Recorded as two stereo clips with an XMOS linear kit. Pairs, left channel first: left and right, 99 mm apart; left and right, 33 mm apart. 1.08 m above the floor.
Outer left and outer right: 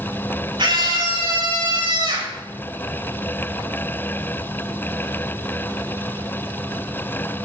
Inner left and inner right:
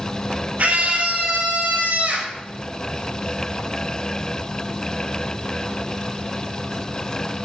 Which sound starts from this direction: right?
A scream, at 0.6 s.